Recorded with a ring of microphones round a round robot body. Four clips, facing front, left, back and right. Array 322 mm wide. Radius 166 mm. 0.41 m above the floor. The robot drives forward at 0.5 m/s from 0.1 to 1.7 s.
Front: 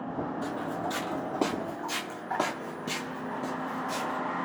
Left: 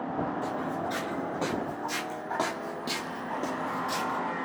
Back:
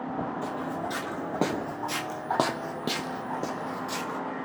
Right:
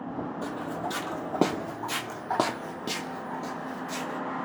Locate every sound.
0.4 s footsteps: 85° right, 1.8 m; by 4.2 s 140° left, 1.3 m